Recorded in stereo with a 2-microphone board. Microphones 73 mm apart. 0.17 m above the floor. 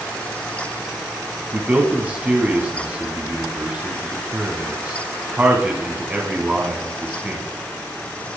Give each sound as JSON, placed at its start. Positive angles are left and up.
{"t": 1.5, "sound": "a man speaking", "side_deg": -20, "distance_m": 1.1}